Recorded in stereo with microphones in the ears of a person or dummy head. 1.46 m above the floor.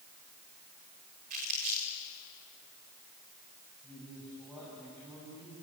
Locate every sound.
1.3 s crumpling: 55° right (ahead or behind), 3.5 m
3.8 s a man speaking: 5° right (ahead or behind), 7.5 m